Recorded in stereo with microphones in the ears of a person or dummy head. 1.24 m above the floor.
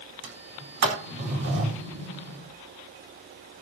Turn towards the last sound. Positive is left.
turn(degrees=-65)  # may be behind; listen again after turning